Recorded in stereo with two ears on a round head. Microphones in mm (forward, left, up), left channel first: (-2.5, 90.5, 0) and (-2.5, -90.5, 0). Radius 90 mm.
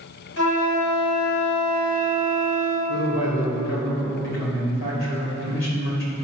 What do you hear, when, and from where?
0.4 s a flute: 85° left, 1.8 m
2.9 s a man speaking: 70° left (ahead or behind), 3 m